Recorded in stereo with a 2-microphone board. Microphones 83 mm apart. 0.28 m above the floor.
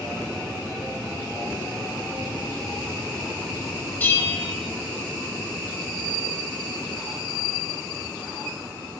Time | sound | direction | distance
4.0 | a bell | 25° left (ahead or behind) | 0.8 m